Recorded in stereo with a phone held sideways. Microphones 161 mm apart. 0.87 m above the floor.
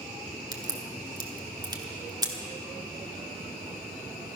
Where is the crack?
25° right (ahead or behind), 1.4 m.